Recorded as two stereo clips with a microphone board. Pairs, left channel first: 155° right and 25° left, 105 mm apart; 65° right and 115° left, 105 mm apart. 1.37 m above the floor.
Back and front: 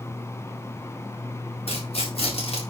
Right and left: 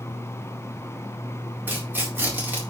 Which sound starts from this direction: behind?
Tearing paper, at 1.7 s.